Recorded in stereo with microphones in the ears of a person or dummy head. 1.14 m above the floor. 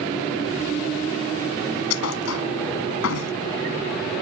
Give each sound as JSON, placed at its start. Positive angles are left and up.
{"t": 1.9, "sound": "a thud", "side_deg": 80}